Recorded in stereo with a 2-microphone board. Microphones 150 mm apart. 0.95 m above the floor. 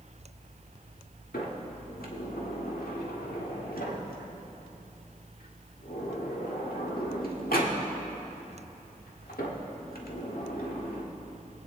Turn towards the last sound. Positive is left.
turn(degrees=85)